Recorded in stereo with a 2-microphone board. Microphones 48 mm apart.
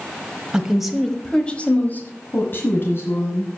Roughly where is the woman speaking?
Centre.